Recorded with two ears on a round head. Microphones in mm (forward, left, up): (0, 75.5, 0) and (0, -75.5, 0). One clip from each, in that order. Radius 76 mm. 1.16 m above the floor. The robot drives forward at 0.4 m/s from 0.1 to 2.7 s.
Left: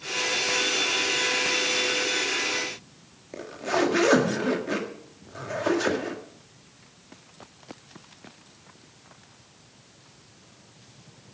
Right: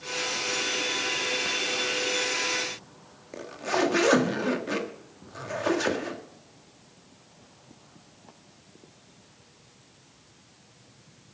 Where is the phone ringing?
No phone ringing in this recording.